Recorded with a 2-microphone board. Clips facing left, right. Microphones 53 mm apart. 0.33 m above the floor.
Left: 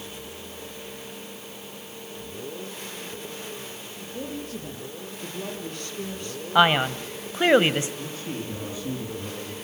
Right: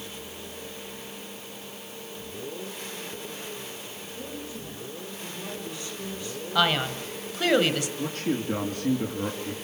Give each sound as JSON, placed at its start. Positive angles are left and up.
{"t": 4.0, "sound": "a woman speaking", "side_deg": 75, "distance_m": 7.5}
{"t": 6.5, "sound": "a man speaking", "side_deg": 30, "distance_m": 1.4}
{"t": 8.0, "sound": "a man speaking", "side_deg": -65, "distance_m": 4.0}